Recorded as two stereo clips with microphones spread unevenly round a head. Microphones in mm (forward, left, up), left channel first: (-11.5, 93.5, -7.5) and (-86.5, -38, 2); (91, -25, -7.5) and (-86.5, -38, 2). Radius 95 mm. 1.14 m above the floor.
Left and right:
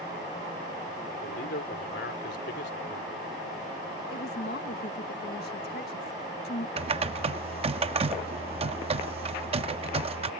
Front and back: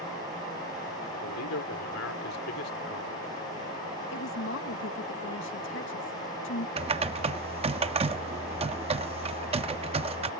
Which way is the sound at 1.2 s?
25° left.